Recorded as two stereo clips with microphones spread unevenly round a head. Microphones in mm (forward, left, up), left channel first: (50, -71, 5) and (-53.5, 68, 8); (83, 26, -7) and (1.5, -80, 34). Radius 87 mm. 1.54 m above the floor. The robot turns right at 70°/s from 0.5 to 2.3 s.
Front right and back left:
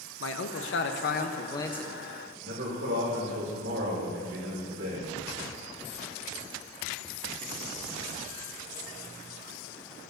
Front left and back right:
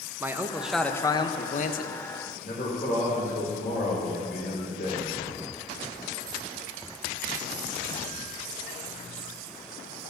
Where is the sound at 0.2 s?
60° right, 0.7 m; by 2.0 s 45° left, 0.7 m.